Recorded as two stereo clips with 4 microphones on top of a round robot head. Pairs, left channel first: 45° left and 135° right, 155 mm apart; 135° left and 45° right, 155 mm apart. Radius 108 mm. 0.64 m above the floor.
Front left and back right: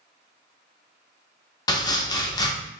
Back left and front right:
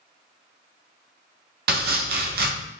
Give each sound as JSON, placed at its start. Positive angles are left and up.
{"t": 1.7, "sound": "chopping", "azimuth_deg": -20, "distance_m": 0.5}